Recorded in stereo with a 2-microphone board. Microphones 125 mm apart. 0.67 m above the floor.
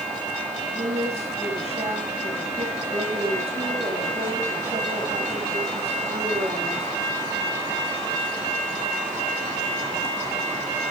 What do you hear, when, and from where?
0.8 s a woman speaking: 55° right (ahead or behind), 5 m